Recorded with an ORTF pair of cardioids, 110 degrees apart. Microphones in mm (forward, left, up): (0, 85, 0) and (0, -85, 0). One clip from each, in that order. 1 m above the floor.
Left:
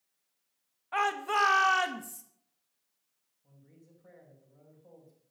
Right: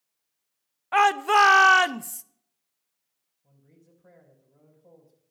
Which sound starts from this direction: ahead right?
A shout, at 0.9 s.